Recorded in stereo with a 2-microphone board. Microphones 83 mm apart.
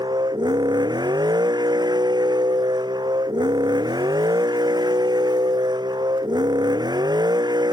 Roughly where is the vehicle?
Right.